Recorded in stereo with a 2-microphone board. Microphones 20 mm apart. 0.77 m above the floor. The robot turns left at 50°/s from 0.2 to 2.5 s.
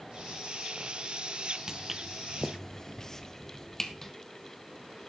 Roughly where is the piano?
I don't hear a piano.